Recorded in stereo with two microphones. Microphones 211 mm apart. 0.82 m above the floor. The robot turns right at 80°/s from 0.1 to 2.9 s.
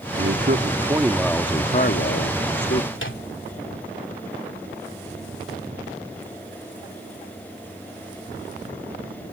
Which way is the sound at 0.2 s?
80° right.